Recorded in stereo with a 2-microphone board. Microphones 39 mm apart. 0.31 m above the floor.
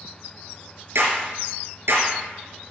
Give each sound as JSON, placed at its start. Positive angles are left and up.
{"t": 0.9, "sound": "a clap", "side_deg": -80, "distance_m": 4.5}